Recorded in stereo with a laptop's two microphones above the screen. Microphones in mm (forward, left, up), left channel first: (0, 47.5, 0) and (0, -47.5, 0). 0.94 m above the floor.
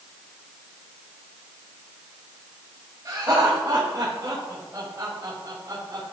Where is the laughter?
50° right (ahead or behind), 4 m; by 6.0 s 40° right (ahead or behind), 5.5 m.